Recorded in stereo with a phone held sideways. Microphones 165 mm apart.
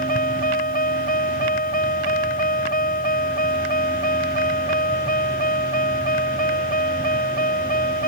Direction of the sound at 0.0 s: 60° left (ahead or behind).